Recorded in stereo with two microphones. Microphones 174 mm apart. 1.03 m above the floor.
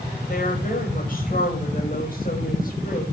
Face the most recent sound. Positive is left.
turn(degrees=55)  # may be behind; listen again after turning